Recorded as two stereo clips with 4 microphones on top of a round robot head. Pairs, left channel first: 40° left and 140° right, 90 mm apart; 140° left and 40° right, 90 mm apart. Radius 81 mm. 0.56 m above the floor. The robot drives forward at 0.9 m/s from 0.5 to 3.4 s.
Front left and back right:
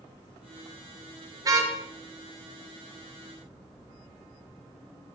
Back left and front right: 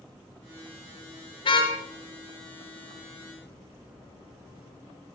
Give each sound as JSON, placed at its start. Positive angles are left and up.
{"t": 1.4, "sound": "a car horn", "azimuth_deg": 170, "distance_m": 6.5}